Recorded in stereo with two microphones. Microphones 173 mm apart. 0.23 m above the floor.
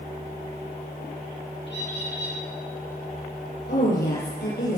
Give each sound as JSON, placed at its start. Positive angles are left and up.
{"t": 1.7, "sound": "a bird", "side_deg": 85, "distance_m": 6.5}
{"t": 3.7, "sound": "a woman speaking", "side_deg": 75, "distance_m": 7.0}